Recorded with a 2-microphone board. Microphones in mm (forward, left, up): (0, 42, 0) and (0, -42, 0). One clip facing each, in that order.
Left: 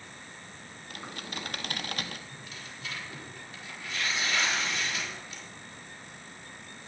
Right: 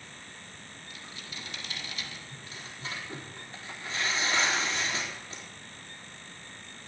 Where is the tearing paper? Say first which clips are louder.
Even; 35° right (ahead or behind), 4 m.